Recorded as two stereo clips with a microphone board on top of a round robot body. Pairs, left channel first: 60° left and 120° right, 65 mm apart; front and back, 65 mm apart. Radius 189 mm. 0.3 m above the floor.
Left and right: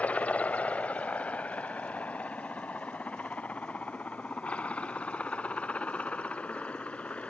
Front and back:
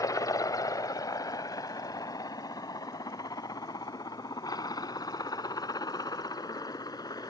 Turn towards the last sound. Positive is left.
turn(degrees=-10)